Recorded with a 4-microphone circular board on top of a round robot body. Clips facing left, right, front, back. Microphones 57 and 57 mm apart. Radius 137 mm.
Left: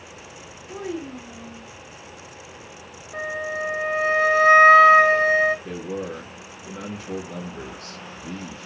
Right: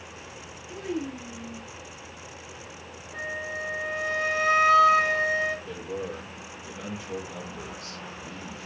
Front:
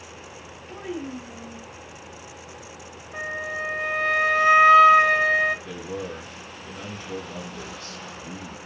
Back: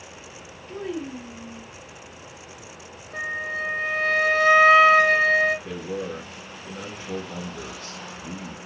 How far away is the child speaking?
About 3 m.